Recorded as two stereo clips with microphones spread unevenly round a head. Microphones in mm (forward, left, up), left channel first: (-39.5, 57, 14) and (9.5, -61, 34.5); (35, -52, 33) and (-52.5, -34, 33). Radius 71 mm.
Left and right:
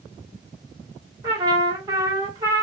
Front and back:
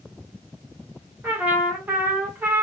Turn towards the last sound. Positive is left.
turn(degrees=-120)